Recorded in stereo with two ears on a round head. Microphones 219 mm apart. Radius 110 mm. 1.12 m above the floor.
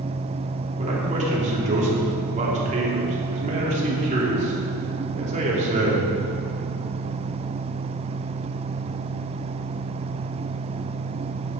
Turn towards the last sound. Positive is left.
turn(degrees=-30)  # may be behind; listen again after turning